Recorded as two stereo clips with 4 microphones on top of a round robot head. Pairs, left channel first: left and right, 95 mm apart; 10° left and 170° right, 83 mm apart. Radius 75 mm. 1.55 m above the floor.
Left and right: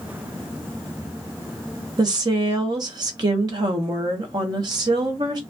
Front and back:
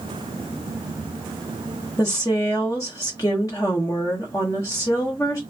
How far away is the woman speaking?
About 0.6 m.